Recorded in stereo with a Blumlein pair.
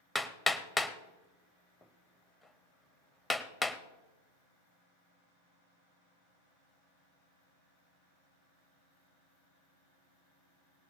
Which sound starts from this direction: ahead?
Hammering, at 0.1 s.